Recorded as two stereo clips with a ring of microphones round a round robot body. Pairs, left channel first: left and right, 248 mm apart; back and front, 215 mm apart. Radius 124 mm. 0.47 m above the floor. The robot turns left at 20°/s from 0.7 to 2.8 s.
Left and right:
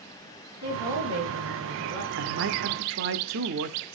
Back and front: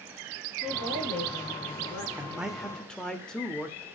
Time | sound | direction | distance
0.6 | a woman speaking | 60° right | 6 m
2.1 | a man speaking | 80° right | 1.1 m